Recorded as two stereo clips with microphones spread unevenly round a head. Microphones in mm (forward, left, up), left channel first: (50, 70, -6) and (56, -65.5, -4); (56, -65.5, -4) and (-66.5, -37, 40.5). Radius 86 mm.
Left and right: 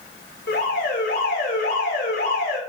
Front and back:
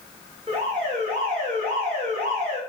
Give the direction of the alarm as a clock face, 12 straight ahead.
8 o'clock.